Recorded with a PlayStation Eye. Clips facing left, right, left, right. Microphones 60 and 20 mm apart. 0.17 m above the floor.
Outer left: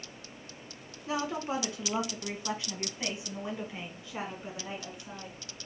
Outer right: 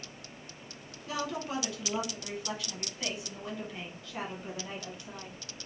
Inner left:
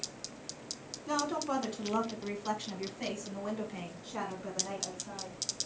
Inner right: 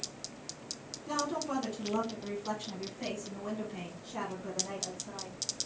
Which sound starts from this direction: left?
A woman speaking, at 1.1 s.